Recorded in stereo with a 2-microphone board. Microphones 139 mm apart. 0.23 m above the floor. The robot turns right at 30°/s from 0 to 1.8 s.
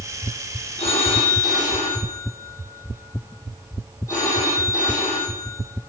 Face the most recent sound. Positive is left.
turn(degrees=160)